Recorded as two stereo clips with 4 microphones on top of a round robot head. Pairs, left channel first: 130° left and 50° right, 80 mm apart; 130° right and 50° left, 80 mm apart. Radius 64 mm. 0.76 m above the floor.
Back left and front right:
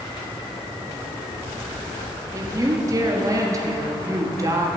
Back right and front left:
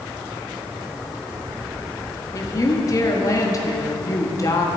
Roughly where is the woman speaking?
Right.